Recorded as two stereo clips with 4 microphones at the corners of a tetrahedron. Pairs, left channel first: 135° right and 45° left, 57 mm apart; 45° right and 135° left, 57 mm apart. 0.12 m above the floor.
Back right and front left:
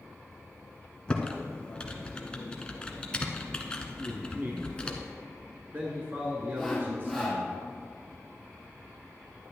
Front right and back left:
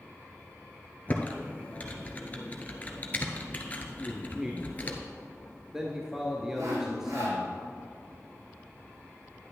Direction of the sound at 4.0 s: 60° left.